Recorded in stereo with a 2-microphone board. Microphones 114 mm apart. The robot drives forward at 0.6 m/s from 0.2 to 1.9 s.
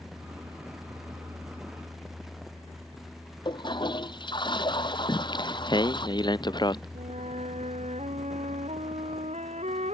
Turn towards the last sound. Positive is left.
turn(degrees=-80)